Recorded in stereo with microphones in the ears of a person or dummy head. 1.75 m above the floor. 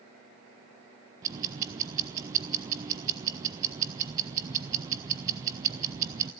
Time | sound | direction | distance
1.2 | ticking | 20° right (ahead or behind) | 0.6 m